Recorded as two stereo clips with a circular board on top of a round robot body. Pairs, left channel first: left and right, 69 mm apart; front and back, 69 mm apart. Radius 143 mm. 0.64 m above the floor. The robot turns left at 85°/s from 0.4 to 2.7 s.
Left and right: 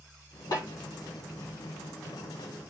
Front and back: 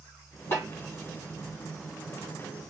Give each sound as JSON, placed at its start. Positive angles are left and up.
{"t": 0.5, "sound": "a snare drum", "azimuth_deg": 50, "distance_m": 3.5}